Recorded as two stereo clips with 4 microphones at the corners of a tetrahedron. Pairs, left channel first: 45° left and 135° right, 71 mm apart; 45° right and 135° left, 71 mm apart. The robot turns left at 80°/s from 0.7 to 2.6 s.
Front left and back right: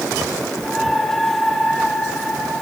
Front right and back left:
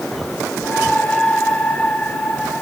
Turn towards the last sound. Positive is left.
No sound to turn to.